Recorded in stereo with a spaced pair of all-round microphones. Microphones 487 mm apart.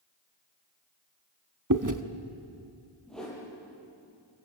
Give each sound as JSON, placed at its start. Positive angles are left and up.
{"t": 1.7, "sound": "chewing", "side_deg": -40, "distance_m": 1.0}
{"t": 3.1, "sound": "a whoosh", "side_deg": 0, "distance_m": 7.5}